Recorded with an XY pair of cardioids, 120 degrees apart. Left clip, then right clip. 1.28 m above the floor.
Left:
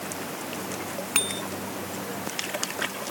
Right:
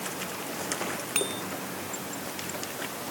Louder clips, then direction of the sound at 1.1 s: Left 4 dB; 25° left.